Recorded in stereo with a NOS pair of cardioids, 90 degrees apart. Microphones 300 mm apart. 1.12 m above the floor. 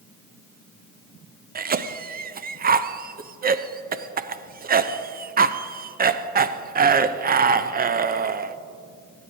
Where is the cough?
30° right, 0.6 m.